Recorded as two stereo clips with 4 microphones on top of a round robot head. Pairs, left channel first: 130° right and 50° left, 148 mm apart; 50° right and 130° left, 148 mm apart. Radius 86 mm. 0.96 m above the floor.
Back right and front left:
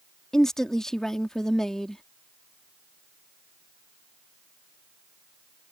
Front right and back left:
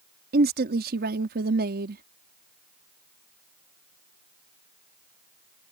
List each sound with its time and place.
0.3 s a woman speaking: 145° left